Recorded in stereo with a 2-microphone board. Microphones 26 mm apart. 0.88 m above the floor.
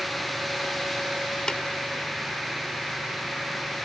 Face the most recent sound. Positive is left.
turn(degrees=30)  # may be behind; listen again after turning